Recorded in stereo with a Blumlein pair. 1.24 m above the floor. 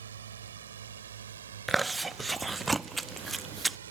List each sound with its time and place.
0.0 s a drone: 65° right
1.7 s chewing: 10° right